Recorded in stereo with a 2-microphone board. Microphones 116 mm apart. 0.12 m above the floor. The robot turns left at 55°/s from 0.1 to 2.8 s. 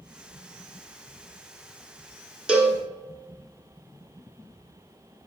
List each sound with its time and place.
2.5 s a cowbell: 10° right (ahead or behind), 1.2 m; by 2.8 s 15° right (ahead or behind), 1.2 m